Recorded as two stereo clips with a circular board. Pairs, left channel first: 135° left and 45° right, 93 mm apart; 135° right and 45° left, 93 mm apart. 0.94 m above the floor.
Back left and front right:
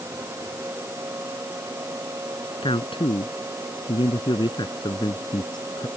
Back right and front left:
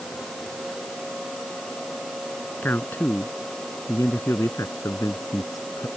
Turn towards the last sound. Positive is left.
turn(degrees=175)